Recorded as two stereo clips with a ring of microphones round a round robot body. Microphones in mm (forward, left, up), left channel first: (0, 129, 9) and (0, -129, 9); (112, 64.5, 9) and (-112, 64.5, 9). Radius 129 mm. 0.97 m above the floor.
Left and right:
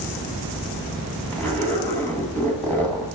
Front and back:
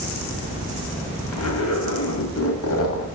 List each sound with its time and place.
1.3 s a zipper: 5° left, 1.7 m